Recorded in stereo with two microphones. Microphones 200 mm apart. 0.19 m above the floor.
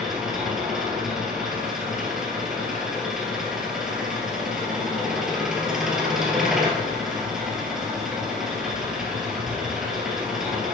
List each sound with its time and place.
0.0 s an engine running: centre (ahead or behind), 1.9 m